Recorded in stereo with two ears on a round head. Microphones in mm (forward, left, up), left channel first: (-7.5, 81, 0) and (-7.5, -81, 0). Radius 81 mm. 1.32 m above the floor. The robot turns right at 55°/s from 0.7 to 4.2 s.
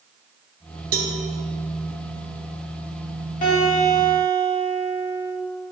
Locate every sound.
0.9 s a cowbell: 55° right (ahead or behind), 1.1 m; by 1.1 s 45° right (ahead or behind), 1.1 m
3.4 s a guitar: 130° left, 3.5 m; by 5.3 s 175° left, 3.5 m